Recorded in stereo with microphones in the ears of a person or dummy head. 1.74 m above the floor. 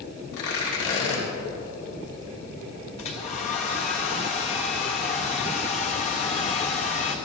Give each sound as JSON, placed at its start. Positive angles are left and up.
{"t": 0.3, "sound": "tearing paper", "side_deg": 70, "distance_m": 3.5}
{"t": 3.0, "sound": "a hair dryer", "side_deg": 35, "distance_m": 1.4}